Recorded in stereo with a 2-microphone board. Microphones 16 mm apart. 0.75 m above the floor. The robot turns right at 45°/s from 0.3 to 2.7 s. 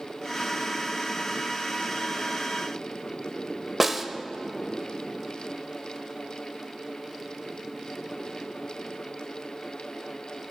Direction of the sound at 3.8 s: 10° right (ahead or behind).